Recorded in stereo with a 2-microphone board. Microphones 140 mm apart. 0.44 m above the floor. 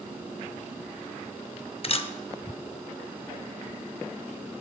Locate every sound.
1.8 s a camera shutter: 45° left (ahead or behind), 0.5 m